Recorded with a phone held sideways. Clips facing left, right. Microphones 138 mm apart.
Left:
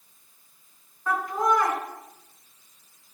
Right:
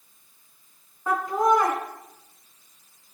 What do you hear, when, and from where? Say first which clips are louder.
1.1 s laughter: right 3 dB; 25° right (ahead or behind), 3 m